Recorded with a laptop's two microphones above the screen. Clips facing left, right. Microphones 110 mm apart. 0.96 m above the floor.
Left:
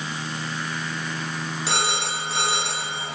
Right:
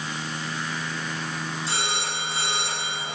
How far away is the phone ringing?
About 3.5 m.